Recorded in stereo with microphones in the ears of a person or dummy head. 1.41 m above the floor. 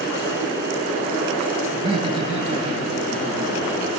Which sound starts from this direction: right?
Laughter, at 1.7 s.